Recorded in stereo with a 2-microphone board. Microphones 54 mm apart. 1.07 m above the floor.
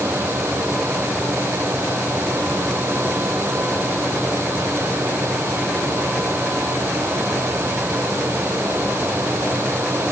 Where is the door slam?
No door slam in this recording.